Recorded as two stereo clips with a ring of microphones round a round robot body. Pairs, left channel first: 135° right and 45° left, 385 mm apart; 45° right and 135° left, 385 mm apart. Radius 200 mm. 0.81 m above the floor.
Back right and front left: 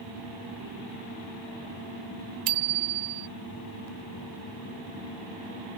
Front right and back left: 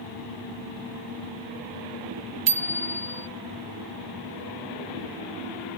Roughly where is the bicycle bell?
Left.